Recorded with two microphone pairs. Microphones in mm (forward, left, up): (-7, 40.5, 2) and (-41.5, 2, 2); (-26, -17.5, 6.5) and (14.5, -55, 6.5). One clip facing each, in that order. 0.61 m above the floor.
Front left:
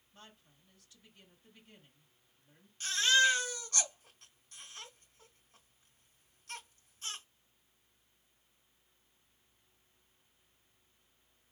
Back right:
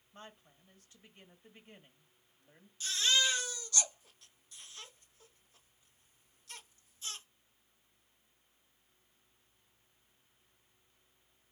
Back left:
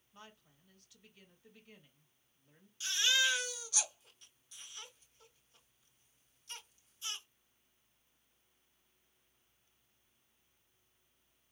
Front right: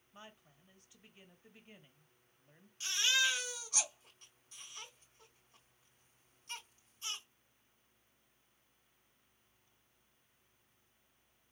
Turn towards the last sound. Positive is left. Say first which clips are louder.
# front left 4 dB, back left 1 dB
turn(degrees=5)